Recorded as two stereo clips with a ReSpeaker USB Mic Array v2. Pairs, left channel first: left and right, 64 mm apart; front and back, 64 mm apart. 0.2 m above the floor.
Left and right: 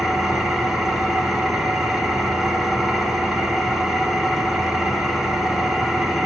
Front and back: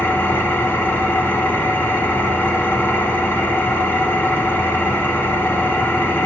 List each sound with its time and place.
0.0 s an engine running: 5° right, 0.8 m